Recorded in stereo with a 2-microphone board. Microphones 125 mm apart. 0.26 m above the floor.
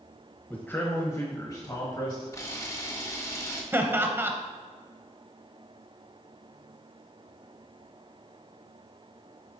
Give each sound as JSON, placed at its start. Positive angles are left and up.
{"t": 0.5, "sound": "a man speaking", "side_deg": 15, "distance_m": 1.2}
{"t": 2.3, "sound": "a camera shutter", "side_deg": 25, "distance_m": 1.3}
{"t": 3.7, "sound": "laughter", "side_deg": -20, "distance_m": 1.0}